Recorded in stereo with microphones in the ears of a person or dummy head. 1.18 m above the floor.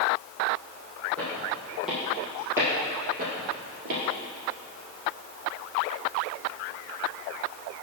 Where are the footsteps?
5° left (ahead or behind), 3 m; by 4.0 s 45° right (ahead or behind), 1.6 m.